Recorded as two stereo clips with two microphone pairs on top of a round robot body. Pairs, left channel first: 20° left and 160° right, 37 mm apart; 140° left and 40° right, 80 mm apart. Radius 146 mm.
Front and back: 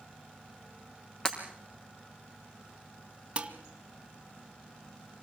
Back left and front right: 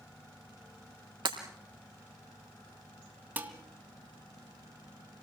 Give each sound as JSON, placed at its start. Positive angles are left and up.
{"t": 1.2, "sound": "breaking glass", "azimuth_deg": -45, "distance_m": 3.0}
{"t": 3.4, "sound": "dishes clattering", "azimuth_deg": -105, "distance_m": 2.0}